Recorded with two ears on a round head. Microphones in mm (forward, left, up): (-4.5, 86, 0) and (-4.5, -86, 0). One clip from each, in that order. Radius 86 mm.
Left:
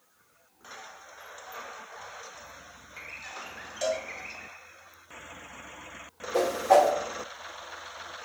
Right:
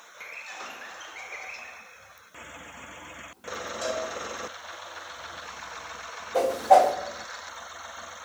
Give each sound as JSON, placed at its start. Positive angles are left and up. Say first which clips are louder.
{"t": 3.8, "sound": "a cowbell", "louder": "left 2 dB", "side_deg": 50, "distance_m": 0.9}
{"t": 6.3, "sound": "a whoosh", "louder": "right 3 dB", "side_deg": 70, "distance_m": 1.3}